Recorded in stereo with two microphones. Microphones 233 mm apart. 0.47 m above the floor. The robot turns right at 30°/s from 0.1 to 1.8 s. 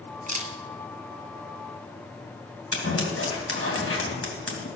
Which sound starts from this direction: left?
Scissors, at 2.7 s.